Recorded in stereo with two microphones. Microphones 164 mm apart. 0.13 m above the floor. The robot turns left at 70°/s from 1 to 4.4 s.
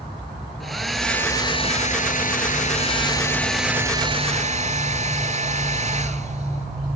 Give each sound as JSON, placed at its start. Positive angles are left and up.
{"t": 0.6, "sound": "a hair dryer", "azimuth_deg": 180, "distance_m": 0.9}